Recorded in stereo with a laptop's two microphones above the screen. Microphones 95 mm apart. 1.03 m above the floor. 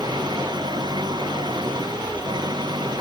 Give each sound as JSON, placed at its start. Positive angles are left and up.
{"t": 0.0, "sound": "an engine running", "side_deg": -50}